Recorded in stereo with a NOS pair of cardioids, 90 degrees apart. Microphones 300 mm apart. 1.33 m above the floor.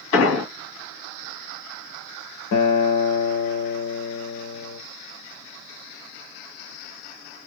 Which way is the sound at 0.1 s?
60° left.